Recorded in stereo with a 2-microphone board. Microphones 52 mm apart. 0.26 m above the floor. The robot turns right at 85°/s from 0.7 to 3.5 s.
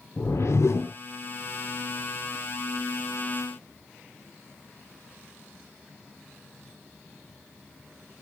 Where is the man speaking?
No man speaking in this recording.